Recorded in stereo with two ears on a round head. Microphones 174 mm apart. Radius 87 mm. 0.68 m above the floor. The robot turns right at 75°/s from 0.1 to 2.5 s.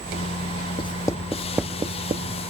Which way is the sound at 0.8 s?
30° left (ahead or behind).